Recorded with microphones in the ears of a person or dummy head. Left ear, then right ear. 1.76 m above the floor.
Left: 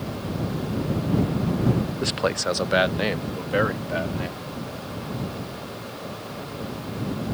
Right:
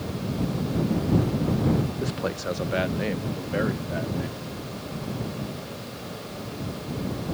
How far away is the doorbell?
I don't hear a doorbell.